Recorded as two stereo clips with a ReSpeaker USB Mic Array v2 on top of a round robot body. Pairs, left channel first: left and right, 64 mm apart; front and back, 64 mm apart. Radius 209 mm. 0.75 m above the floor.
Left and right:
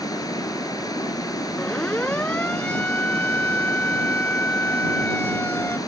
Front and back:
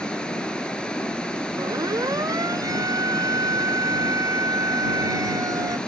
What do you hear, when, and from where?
0.0 s running water: 75° left
1.6 s a siren: 160° left; by 5.8 s 150° left